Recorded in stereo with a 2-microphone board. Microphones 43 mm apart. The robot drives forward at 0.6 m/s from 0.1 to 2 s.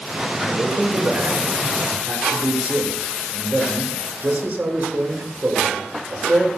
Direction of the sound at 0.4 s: 55° right (ahead or behind).